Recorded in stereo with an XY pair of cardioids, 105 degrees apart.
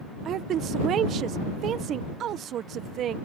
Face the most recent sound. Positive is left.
turn(degrees=-65)